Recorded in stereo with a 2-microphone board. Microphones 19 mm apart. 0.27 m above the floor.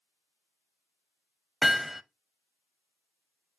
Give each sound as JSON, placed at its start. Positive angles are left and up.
{"t": 1.6, "sound": "hammering", "side_deg": -5, "distance_m": 0.5}